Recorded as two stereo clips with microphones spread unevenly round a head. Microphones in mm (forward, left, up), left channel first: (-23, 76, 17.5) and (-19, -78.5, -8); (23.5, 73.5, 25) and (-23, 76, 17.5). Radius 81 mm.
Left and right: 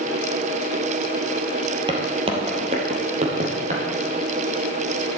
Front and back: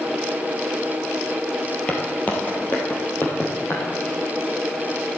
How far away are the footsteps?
About 2 m.